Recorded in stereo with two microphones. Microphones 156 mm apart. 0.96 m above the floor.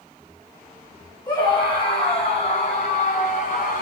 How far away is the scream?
About 5.5 m.